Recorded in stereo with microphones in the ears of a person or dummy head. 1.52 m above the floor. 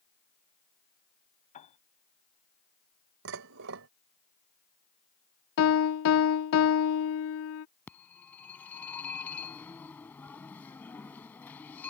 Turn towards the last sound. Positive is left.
turn(degrees=15)  # may be behind; listen again after turning